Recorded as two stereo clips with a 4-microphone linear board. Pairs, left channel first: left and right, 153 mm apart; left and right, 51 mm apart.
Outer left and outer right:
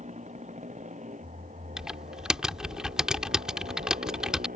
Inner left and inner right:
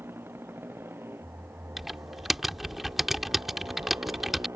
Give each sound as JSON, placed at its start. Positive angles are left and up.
{"t": 0.0, "sound": "a motorcycle", "side_deg": -50}
{"t": 1.8, "sound": "typing on a keyboard", "side_deg": -5}